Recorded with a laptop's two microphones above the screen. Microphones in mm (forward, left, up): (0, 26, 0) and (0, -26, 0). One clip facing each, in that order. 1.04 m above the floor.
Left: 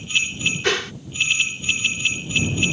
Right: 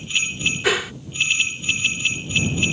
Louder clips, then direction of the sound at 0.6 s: Right 2 dB; 10° right (ahead or behind).